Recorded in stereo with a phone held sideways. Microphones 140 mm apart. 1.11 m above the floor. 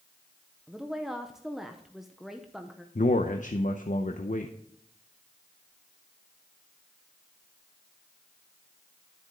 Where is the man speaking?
65° left (ahead or behind), 0.7 m.